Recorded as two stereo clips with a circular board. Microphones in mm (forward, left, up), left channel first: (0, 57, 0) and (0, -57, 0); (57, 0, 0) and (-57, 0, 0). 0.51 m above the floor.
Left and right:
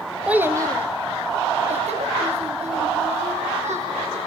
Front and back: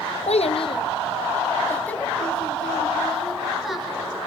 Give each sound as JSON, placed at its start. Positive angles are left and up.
{"t": 0.3, "sound": "a child speaking", "azimuth_deg": -10, "distance_m": 1.5}